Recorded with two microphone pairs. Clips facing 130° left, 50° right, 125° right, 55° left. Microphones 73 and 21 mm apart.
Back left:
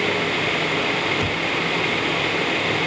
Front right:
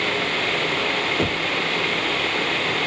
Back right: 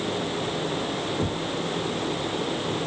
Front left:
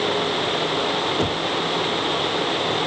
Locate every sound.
1.2 s knocking: 5° left